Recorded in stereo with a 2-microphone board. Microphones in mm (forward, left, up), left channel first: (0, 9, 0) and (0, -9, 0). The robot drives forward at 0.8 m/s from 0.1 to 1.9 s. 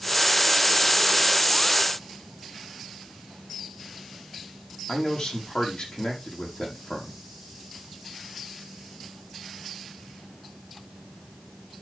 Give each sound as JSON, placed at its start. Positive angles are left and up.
{"t": 4.9, "sound": "a man speaking", "side_deg": 60, "distance_m": 5.5}